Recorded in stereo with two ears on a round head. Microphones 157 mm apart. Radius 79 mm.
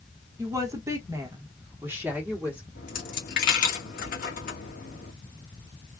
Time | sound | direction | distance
0.4 | a woman speaking | 15° right (ahead or behind) | 1.2 m
2.8 | a dropped coin | 50° left (ahead or behind) | 1.7 m